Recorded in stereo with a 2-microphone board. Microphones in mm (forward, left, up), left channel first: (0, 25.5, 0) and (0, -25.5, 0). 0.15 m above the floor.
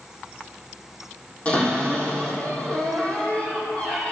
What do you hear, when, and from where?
1.4 s a cupboard door: 30° left (ahead or behind), 4 m